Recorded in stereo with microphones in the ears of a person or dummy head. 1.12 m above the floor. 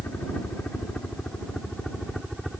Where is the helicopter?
10° left (ahead or behind); by 2.6 s centre (ahead or behind).